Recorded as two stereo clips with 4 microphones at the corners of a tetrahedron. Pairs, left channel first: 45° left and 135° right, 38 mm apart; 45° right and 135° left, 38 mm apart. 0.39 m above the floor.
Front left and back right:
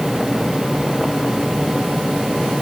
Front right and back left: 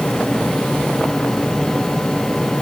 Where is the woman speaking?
I don't hear a woman speaking.